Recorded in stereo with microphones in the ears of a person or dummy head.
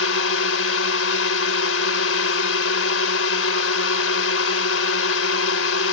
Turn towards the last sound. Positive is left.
turn(degrees=85)